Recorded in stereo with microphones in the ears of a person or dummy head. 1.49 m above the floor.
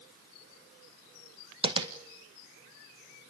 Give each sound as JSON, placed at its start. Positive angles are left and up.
{"t": 1.6, "sound": "tapping", "side_deg": -30, "distance_m": 1.9}